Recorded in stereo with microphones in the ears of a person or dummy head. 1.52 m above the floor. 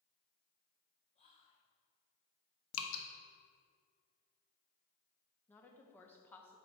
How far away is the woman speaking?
About 1.0 m.